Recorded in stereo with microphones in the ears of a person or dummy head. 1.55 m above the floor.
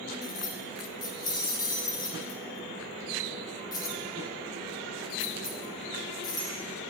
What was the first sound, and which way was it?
Keys jangling, 25° left (ahead or behind).